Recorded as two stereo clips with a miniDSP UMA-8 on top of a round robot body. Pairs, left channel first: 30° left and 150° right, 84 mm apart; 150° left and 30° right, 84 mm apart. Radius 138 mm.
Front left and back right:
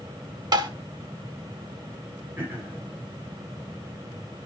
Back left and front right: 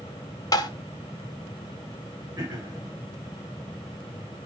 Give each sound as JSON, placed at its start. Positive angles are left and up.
{"t": 0.5, "sound": "tapping", "azimuth_deg": -175, "distance_m": 1.7}
{"t": 2.4, "sound": "throat clearing", "azimuth_deg": -85, "distance_m": 9.0}